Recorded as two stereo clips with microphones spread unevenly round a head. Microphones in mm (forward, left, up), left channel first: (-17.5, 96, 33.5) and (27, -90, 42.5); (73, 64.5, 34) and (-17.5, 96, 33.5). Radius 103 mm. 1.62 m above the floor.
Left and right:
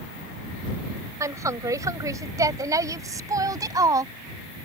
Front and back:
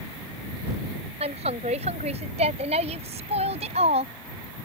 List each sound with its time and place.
1.2 s a woman speaking: 150° right